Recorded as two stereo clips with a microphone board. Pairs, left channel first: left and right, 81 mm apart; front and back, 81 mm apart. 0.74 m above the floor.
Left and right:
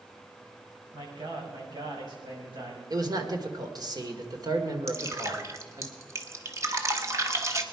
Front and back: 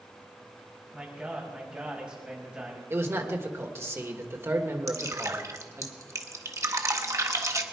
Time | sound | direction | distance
0.9 | a man speaking | 105° right | 5 m
2.9 | a man speaking | 125° right | 2.0 m
4.9 | dripping | 135° right | 1.4 m